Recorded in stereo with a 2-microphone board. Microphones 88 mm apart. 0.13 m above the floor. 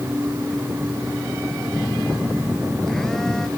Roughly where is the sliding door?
I don't hear a sliding door.